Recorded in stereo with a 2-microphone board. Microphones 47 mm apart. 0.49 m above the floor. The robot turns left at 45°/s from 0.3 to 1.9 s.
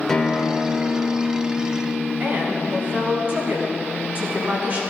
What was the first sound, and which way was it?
A guitar, 165° left.